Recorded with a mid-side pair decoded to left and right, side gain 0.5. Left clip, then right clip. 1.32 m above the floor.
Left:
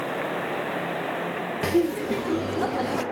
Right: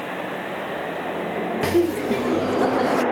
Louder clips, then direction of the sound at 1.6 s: Right 3 dB; 20° right.